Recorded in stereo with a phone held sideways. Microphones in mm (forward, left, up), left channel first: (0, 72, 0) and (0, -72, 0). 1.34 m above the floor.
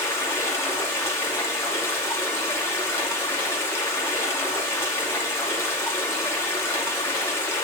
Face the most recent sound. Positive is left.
turn(degrees=15)  # may be behind; listen again after turning